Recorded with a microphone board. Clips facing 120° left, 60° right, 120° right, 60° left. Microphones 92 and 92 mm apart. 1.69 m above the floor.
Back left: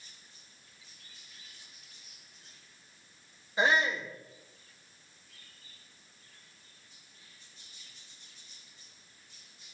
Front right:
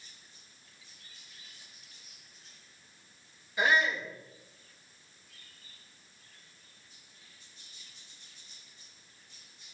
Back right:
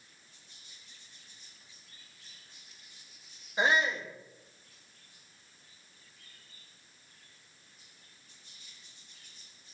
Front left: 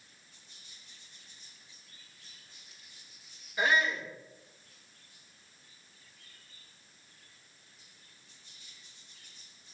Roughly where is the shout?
Behind.